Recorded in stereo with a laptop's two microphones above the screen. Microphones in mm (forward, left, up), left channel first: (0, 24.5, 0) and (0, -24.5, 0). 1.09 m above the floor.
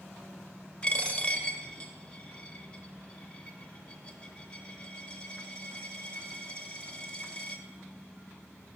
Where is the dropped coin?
20° left (ahead or behind), 0.7 m.